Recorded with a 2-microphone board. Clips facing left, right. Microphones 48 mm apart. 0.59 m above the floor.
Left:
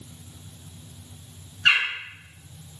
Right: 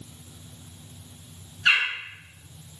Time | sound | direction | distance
1.6 | a bird | 55° left (ahead or behind) | 1.4 m